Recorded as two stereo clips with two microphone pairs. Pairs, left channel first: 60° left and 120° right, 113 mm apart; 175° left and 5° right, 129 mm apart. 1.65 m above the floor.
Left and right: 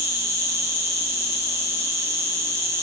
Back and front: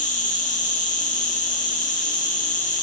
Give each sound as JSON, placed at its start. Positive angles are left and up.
{"t": 0.0, "sound": "an insect", "azimuth_deg": 175, "distance_m": 2.0}